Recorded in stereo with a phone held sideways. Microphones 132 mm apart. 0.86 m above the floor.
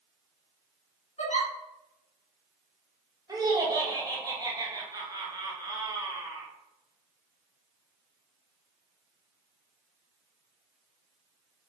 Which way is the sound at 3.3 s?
25° right (ahead or behind).